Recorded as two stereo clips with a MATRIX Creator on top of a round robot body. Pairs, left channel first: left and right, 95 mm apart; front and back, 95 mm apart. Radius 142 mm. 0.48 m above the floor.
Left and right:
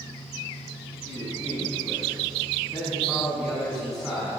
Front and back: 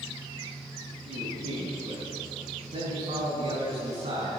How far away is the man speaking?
About 5 m.